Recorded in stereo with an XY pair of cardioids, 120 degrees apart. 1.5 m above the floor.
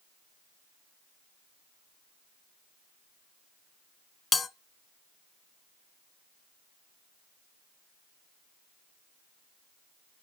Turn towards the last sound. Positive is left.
turn(degrees=35)